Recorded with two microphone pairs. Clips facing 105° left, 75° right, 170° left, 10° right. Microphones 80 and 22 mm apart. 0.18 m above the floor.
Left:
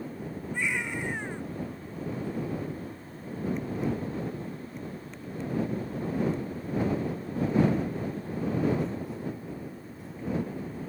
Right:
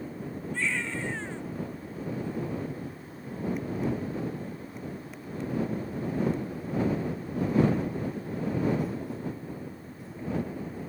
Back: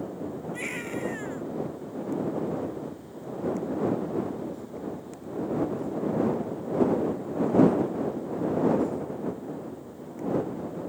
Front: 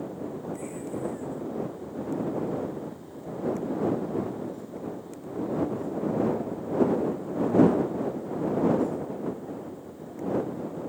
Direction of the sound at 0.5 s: Straight behind.